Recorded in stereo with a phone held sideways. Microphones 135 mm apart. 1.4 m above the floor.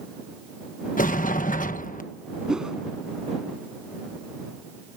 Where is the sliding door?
80° left.